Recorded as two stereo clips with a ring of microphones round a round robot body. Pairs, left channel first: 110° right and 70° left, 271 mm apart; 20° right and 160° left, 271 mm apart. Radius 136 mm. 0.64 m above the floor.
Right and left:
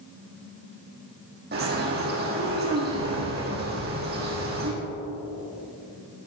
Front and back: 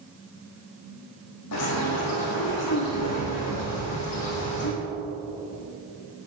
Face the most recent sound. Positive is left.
turn(degrees=10)